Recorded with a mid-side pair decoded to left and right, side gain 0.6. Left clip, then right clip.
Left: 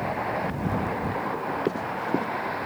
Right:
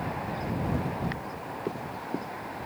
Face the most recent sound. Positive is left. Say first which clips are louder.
# left 7 dB
turn(degrees=35)